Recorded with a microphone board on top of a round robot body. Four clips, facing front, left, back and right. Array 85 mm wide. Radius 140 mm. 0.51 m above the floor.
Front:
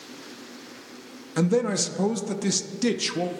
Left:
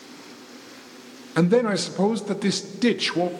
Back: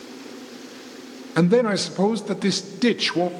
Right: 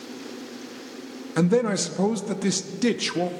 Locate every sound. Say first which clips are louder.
1.4 s a man speaking: left 2 dB, back 5 dB; 150° left, 0.7 m